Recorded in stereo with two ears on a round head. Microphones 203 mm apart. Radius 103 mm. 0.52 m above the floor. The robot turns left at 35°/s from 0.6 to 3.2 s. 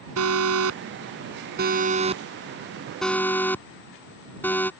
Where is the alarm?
75° right (ahead or behind); by 4.7 s 10° left (ahead or behind).